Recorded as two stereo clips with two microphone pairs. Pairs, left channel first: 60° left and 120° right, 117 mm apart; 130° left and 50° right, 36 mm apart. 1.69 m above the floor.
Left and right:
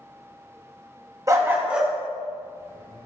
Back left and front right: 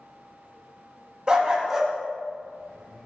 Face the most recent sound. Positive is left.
turn(degrees=70)